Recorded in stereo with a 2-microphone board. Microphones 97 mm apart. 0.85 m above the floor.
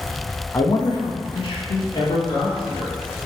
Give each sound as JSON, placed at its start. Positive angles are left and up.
{"t": 0.5, "sound": "a man speaking", "side_deg": 30, "distance_m": 1.0}